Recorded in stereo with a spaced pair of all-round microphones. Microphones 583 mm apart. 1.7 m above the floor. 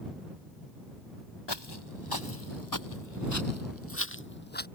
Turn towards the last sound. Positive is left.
turn(degrees=15)  # may be behind; listen again after turning